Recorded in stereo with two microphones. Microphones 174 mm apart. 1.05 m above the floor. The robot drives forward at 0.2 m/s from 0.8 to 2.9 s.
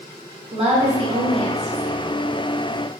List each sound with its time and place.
0.5 s a woman speaking: 35° right (ahead or behind), 0.8 m; by 2.0 s 40° right (ahead or behind), 0.7 m